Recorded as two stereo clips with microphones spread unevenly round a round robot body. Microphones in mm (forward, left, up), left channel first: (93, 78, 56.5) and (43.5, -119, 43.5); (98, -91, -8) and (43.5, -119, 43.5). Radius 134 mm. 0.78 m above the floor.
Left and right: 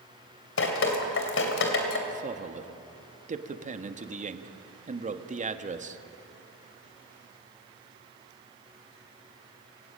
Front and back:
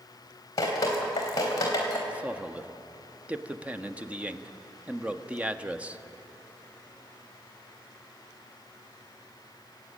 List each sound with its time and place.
0.6 s dripping: 60° left, 3 m
2.1 s a man speaking: 60° right, 1.4 m